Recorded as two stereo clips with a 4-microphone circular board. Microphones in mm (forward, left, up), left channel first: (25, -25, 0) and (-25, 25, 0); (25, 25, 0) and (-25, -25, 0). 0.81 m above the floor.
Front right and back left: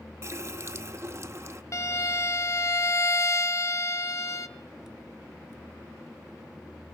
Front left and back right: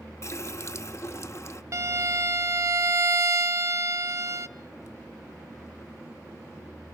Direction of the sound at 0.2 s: 90° left.